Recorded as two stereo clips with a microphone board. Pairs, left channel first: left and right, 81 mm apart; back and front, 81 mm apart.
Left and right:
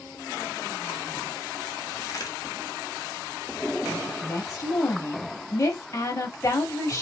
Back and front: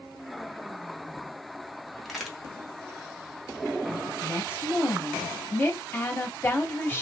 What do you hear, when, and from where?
2.0 s a crack: 90° left, 0.9 m
4.1 s a woman speaking: 125° left, 0.9 m